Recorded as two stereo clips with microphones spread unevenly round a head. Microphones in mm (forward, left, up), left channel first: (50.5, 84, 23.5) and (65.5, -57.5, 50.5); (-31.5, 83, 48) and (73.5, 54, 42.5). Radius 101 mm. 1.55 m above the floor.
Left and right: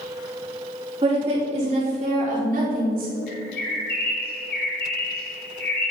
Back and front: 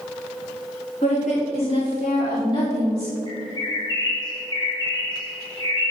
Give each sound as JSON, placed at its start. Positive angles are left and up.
{"t": 1.0, "sound": "a woman speaking", "azimuth_deg": -150, "distance_m": 4.0}
{"t": 3.3, "sound": "a bird", "azimuth_deg": 115, "distance_m": 3.0}